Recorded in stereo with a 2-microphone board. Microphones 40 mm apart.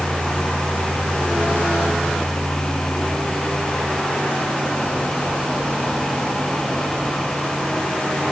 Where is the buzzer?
I don't hear a buzzer.